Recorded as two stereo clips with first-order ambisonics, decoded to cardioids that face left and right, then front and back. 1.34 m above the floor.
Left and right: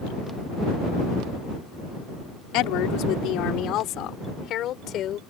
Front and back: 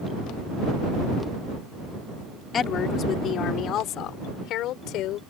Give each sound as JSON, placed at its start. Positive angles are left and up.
{"t": 2.5, "sound": "a woman speaking", "azimuth_deg": 60}